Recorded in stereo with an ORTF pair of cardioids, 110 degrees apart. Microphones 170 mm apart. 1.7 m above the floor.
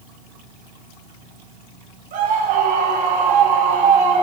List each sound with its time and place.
2.1 s a scream: 50° right, 3.5 m; by 4.2 s 35° right, 3.5 m